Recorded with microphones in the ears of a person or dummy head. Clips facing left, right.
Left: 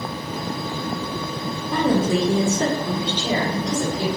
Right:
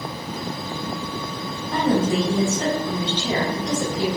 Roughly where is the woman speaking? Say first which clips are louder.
Left 1 dB; left.